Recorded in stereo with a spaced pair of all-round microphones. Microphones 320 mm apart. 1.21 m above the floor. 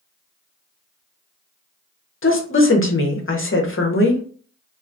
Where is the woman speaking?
40° left (ahead or behind), 0.7 m.